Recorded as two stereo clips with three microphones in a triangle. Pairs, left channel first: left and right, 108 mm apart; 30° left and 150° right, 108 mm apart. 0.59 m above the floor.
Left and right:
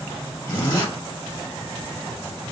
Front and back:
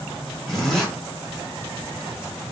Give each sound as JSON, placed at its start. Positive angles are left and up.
{"t": 0.5, "sound": "a zipper", "azimuth_deg": 120, "distance_m": 1.1}